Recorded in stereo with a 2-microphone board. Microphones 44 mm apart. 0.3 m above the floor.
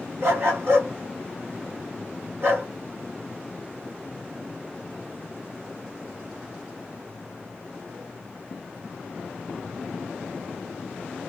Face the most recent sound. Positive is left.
turn(degrees=-65)  # may be behind; listen again after turning